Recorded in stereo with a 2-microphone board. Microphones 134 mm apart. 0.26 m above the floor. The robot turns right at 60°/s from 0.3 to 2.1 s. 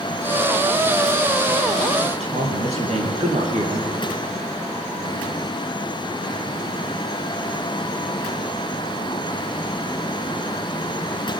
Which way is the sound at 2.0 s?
55° right (ahead or behind).